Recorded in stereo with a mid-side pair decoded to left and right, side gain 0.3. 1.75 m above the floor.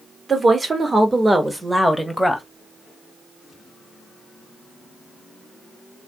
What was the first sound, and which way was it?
A woman speaking, 50° right.